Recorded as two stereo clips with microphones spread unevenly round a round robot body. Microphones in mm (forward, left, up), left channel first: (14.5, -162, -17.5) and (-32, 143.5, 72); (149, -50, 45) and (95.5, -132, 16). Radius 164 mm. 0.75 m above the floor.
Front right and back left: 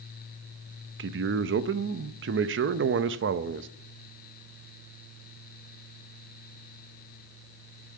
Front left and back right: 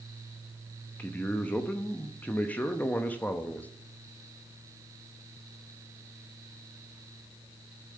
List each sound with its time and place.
1.0 s a man speaking: 150° left, 0.6 m